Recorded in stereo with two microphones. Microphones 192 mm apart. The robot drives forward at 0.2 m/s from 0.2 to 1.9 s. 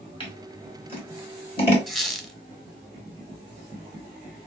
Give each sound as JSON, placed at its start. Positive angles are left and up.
{"t": 0.2, "sound": "scissors", "side_deg": 30, "distance_m": 1.7}
{"t": 1.9, "sound": "a squeak", "side_deg": 0, "distance_m": 0.6}